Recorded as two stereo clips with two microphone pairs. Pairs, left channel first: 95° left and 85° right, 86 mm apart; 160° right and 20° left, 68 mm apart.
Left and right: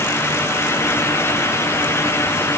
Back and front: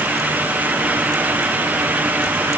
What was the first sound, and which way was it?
Only background noise.